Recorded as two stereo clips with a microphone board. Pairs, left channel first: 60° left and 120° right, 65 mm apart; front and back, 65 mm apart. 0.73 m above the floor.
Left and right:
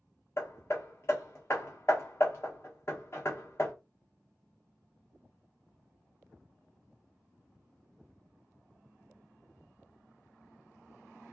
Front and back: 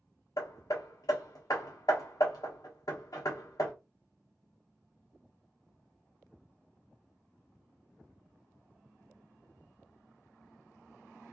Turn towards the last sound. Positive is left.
turn(degrees=15)